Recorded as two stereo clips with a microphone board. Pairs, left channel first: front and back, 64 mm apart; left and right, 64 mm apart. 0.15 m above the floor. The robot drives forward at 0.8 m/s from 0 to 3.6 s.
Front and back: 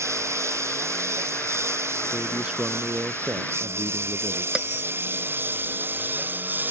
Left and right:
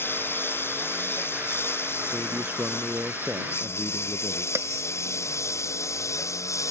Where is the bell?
110° right.